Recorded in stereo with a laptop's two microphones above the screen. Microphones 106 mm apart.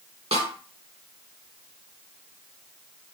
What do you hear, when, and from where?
0.3 s a snare drum: 75° right (ahead or behind), 1.0 m